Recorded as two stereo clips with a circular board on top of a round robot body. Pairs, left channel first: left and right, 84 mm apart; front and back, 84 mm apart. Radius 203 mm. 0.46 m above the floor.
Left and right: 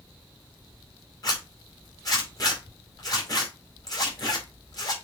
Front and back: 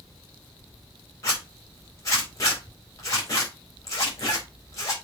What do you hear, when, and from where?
1.2 s a zipper: 50° left, 4 m